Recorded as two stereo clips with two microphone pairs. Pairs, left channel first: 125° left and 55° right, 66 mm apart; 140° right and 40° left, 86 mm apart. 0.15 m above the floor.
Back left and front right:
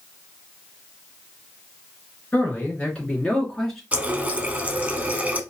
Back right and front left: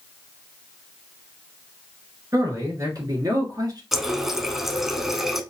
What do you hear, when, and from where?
2.3 s a man speaking: 70° left, 2 m; by 3.8 s 40° left, 2 m
3.9 s a running tap: 45° right, 0.7 m